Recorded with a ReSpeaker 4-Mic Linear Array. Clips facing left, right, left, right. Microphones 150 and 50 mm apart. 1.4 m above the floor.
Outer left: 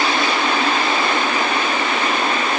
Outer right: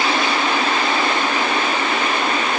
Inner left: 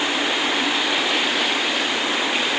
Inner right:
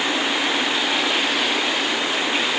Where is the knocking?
I don't hear knocking.